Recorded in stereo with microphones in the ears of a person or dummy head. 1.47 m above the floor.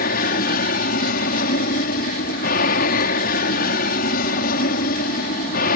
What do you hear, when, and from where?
0.0 s an aircraft: 55° left (ahead or behind)